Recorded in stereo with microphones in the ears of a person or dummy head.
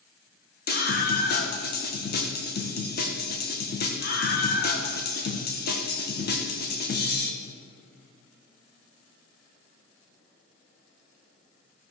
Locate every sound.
0.7 s a scream: 45° left (ahead or behind), 1.9 m